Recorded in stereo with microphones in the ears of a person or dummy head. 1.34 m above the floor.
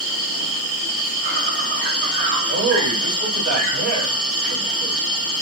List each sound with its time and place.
0.0 s an insect: 50° right (ahead or behind), 2 m
2.5 s a man speaking: 75° right (ahead or behind), 2 m